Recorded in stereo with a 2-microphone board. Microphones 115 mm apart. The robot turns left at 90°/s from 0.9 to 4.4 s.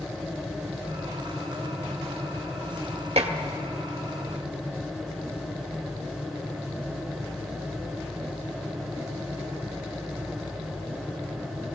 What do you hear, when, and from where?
3.2 s dishes clattering: 65° right (ahead or behind), 1.3 m; by 3.3 s 80° right, 1.3 m